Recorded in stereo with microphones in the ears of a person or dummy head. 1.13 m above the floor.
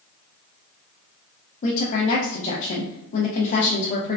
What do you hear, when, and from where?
1.6 s a woman speaking: 40° left (ahead or behind), 0.6 m